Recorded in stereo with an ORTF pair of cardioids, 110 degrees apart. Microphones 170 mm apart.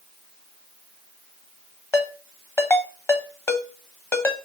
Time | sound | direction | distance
1.9 | a ringtone | 15° left | 0.8 m